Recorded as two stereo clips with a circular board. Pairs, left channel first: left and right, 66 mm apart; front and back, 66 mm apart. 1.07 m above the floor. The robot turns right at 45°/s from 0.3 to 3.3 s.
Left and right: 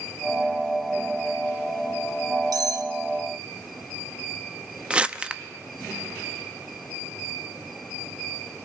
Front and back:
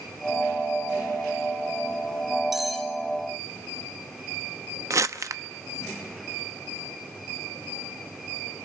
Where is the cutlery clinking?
95° right, 1.0 m; by 2.9 s 80° right, 1.0 m.